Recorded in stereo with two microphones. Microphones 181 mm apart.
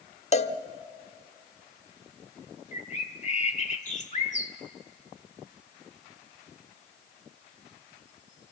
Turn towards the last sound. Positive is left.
turn(degrees=40)  # may be behind; listen again after turning